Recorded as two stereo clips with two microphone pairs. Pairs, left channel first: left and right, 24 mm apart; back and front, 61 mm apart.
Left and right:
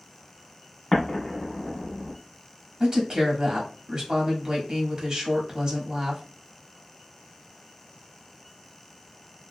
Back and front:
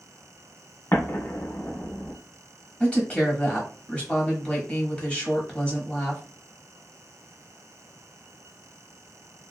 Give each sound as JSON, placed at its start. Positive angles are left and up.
{"t": 0.9, "sound": "an explosion", "azimuth_deg": 150, "distance_m": 1.0}
{"t": 2.8, "sound": "a woman speaking", "azimuth_deg": -120, "distance_m": 1.2}